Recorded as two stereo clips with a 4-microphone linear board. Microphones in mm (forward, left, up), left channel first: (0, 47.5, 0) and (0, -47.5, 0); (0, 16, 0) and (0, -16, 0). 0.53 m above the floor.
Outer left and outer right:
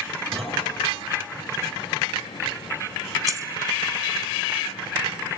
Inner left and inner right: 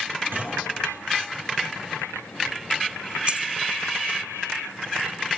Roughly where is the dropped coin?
Right.